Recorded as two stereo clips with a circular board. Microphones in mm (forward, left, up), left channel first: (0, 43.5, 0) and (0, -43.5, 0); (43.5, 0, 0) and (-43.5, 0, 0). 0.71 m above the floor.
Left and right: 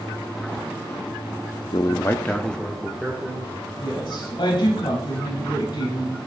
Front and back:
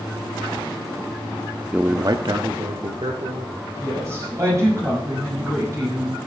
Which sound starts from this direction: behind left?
A woman speaking, at 3.8 s.